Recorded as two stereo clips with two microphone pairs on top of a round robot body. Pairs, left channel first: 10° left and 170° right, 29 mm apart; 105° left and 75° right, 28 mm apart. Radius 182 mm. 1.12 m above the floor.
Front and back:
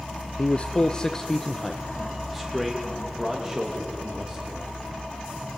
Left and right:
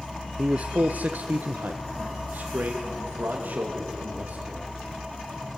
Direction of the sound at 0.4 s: 25° right.